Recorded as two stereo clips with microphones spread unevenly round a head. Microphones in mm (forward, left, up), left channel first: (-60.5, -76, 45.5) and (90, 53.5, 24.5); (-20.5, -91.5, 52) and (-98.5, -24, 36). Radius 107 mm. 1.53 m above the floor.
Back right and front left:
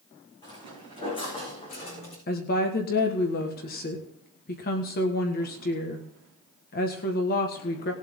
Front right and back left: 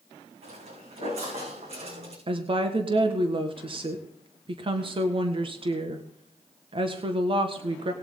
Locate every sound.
0.4 s footsteps: 150° left, 7 m; by 2.2 s 160° left, 7 m
2.3 s a woman speaking: 170° left, 1.6 m